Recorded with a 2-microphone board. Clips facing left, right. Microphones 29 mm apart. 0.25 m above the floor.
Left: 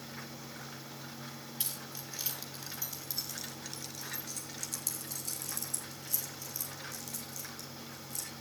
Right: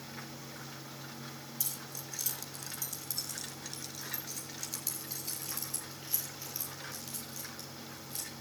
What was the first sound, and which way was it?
Keys jangling, 45° left (ahead or behind).